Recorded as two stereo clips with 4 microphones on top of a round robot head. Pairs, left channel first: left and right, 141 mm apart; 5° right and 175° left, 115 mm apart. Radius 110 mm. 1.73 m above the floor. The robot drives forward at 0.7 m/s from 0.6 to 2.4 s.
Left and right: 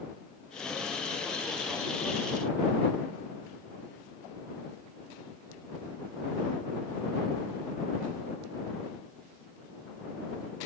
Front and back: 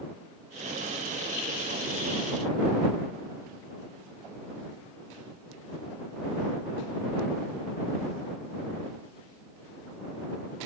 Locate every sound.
Only background noise.